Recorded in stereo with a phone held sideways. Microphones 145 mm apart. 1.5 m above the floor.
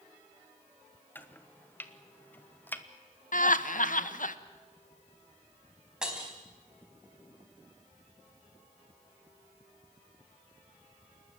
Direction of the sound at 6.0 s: 5° right (ahead or behind).